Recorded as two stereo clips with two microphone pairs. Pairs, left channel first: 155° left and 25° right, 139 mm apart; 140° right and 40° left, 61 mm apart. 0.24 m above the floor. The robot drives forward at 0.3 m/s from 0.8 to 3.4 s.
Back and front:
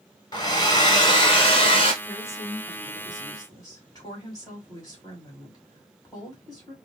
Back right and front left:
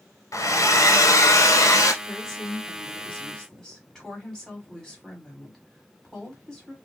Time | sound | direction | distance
0.3 | a hair dryer | 150° right | 0.6 m
2.0 | a woman speaking | 125° left | 1.5 m